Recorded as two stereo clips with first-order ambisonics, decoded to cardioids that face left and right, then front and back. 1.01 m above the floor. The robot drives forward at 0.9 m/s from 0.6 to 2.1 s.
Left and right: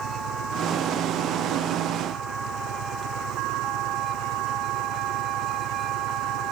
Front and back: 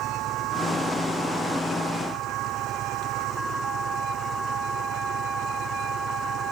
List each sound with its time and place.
0.0 s an engine running: 120° right; by 6.5 s 125° right